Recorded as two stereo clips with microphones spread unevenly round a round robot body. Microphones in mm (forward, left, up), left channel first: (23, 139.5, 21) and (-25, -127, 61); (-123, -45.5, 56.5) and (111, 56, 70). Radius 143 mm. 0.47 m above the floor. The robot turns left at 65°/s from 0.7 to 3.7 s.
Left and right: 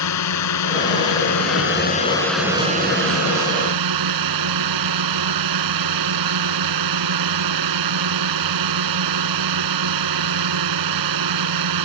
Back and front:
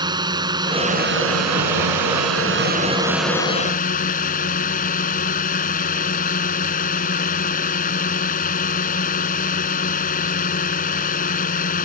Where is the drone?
100° left; by 11.9 s 95° right.